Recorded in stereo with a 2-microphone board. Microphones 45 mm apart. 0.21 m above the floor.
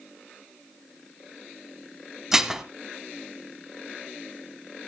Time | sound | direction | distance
2.3 | dishes clattering | 10° right (ahead or behind) | 0.8 m